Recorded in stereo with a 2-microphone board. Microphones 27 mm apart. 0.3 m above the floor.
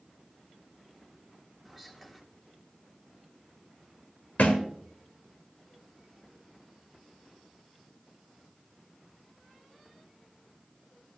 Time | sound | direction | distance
1.6 | whispering | 10° right (ahead or behind) | 1.3 m
4.4 | a thud | 55° left (ahead or behind) | 2.5 m